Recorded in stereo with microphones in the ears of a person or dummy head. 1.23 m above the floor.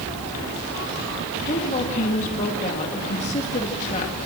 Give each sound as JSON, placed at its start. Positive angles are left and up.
{"t": 1.4, "sound": "a woman speaking", "side_deg": 40, "distance_m": 2.0}